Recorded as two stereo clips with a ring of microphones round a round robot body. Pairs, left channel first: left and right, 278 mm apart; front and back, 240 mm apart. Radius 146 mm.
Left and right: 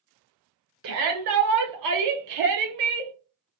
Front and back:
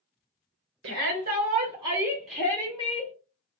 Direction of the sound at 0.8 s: 130° right.